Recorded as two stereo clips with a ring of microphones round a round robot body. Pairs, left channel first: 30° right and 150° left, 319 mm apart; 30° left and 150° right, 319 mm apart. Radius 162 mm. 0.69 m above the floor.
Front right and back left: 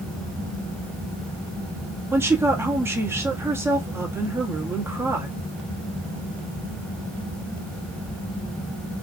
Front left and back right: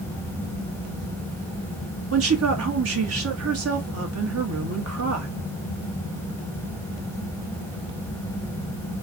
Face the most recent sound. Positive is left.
turn(degrees=-130)